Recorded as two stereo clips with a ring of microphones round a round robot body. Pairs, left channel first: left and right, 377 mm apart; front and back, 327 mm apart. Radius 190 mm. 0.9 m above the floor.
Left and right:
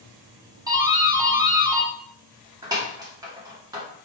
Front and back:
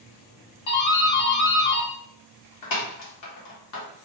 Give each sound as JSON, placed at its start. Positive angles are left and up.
{"t": 0.7, "sound": "a doorbell", "azimuth_deg": -10, "distance_m": 1.5}